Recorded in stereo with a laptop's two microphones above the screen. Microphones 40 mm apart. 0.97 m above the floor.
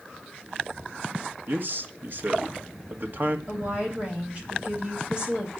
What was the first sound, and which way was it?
A man speaking, 50° right (ahead or behind).